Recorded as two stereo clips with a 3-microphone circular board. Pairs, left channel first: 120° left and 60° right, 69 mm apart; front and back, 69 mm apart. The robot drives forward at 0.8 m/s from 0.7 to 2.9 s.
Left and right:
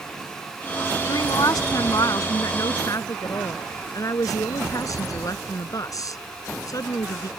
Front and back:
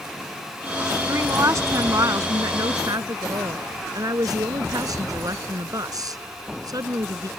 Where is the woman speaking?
135° left; by 7.3 s 155° left.